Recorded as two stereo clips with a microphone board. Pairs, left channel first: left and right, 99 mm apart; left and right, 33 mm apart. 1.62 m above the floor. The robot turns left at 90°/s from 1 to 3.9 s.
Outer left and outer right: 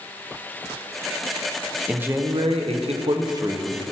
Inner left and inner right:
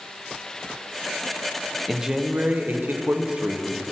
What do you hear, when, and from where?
1.9 s a man speaking: 5° right, 1.0 m; by 3.8 s straight behind, 1.0 m